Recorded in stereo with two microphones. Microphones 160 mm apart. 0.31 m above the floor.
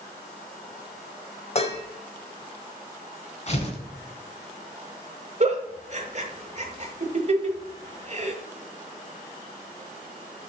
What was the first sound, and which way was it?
Dishes clattering, 40° left (ahead or behind).